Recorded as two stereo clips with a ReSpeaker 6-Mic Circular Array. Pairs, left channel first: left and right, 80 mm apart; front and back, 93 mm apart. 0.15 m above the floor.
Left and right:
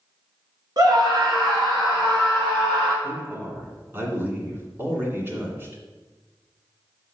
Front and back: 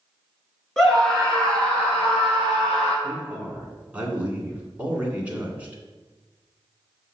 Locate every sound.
0.8 s a scream: 85° right, 2.5 m; by 2.9 s 75° right, 5.5 m
3.0 s a man speaking: 120° right, 1.8 m